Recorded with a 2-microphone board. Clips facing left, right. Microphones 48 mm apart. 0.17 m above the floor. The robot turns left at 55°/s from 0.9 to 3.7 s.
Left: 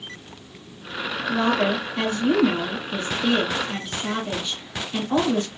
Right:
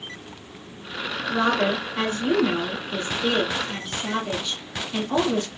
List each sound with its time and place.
1.3 s a woman speaking: 40° right, 2.5 m; by 5.5 s 175° right, 2.5 m